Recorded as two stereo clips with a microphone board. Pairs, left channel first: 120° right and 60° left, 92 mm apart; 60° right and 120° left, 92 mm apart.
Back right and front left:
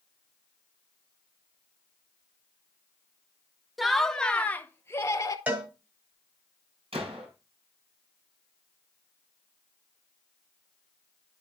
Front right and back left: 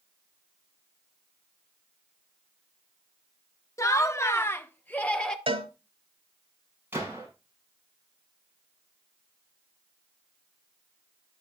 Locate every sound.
3.8 s laughter: 30° right, 0.9 m; by 5.4 s 130° right, 0.9 m
5.5 s a cowbell: 130° left, 2.0 m
6.9 s a gunshot: 50° left, 5.5 m